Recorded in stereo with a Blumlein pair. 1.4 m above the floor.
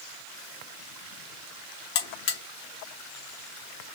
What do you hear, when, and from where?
1.9 s a buzzer: 50° left, 1.5 m